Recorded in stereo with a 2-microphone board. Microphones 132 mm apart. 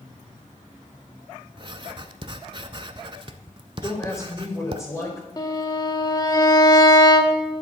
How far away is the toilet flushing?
I don't hear a toilet flushing.